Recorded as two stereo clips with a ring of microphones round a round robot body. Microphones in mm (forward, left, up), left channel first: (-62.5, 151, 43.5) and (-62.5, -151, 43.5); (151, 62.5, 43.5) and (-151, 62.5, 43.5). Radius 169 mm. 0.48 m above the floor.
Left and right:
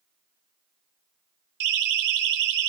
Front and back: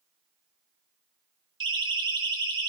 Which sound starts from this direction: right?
A siren, at 1.6 s.